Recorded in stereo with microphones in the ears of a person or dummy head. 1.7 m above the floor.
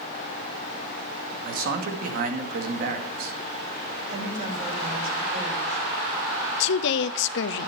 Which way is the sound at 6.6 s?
75° left (ahead or behind).